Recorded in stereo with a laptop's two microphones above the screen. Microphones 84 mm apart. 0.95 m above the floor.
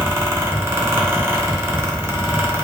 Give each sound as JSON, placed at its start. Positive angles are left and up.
{"t": 0.0, "sound": "a fan", "side_deg": -30, "distance_m": 0.8}